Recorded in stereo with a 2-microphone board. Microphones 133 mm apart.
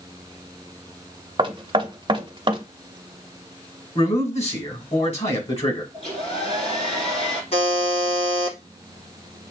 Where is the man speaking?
55° left (ahead or behind), 2.5 m.